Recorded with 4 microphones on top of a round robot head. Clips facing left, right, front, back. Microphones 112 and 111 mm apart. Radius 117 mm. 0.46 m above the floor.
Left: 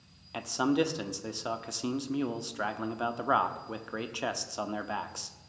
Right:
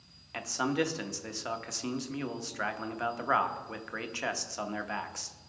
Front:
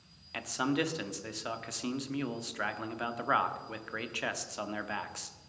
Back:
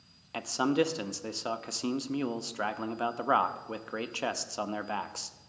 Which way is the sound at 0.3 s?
150° left.